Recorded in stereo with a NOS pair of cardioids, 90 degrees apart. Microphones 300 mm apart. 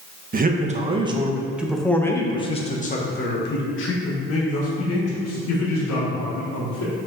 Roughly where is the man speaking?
Ahead right.